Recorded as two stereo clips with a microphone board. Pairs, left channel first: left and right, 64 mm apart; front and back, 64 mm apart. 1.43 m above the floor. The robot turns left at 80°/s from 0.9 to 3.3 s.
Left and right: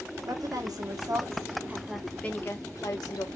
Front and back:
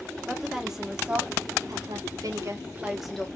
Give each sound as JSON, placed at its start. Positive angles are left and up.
{"t": 0.3, "sound": "a woman speaking", "azimuth_deg": -95, "distance_m": 0.9}